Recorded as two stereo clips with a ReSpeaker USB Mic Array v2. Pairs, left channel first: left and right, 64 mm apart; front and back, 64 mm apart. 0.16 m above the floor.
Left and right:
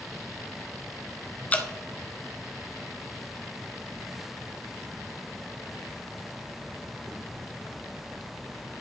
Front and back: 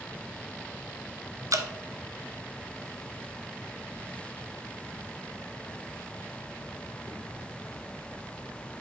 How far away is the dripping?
About 0.6 m.